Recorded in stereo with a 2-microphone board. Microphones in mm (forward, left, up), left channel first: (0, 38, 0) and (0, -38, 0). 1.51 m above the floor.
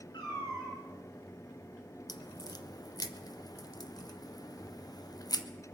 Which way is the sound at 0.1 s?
65° left (ahead or behind).